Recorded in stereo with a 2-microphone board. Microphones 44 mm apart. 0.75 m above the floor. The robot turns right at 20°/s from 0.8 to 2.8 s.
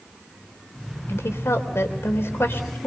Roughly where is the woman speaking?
Left.